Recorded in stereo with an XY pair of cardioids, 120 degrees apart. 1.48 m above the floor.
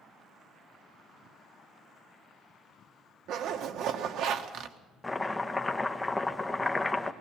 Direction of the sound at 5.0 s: 15° left.